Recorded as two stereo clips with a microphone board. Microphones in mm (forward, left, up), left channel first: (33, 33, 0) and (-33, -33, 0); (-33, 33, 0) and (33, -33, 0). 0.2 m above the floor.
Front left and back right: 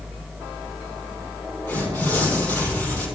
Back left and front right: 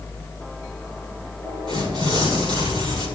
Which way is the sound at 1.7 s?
25° right.